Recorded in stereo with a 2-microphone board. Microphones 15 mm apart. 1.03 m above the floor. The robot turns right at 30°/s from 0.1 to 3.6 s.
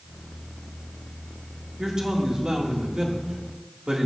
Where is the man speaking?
130° right, 1.9 m; by 4.1 s 80° right, 1.9 m.